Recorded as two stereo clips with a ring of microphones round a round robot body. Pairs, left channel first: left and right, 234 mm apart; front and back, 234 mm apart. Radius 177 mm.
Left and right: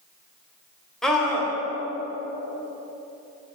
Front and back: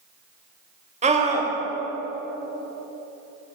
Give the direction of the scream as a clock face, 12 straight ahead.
6 o'clock.